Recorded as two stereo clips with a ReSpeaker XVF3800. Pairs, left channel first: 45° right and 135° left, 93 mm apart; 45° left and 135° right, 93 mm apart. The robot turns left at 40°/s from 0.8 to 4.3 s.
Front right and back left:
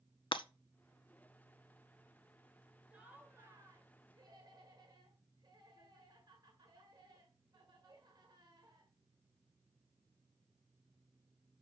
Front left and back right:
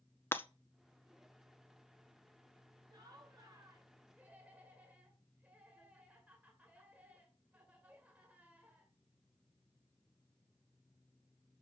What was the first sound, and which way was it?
Breaking glass, 20° right.